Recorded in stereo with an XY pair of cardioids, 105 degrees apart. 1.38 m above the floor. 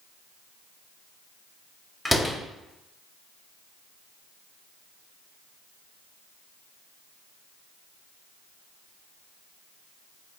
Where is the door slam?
5° left, 2.5 m.